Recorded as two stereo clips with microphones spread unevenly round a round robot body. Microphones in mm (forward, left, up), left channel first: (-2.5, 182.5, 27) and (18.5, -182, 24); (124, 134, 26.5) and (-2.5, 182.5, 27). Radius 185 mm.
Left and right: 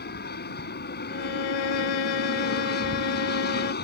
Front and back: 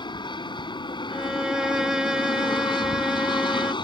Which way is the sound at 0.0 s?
30° left.